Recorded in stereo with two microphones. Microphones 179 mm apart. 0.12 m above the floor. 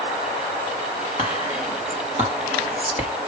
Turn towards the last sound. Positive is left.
turn(degrees=40)  # may be behind; listen again after turning